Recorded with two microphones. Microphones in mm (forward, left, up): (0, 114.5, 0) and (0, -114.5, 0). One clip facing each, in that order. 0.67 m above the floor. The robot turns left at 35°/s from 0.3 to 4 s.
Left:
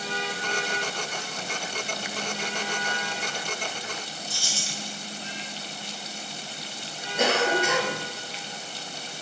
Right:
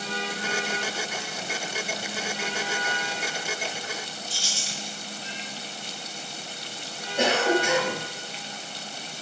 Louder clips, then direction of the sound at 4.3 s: Left 1 dB; 50° left (ahead or behind).